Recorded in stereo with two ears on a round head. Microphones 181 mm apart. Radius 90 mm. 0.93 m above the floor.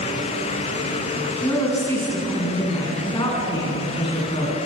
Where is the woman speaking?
10° left (ahead or behind), 8.5 m; by 4.6 s 30° left (ahead or behind), 9.5 m.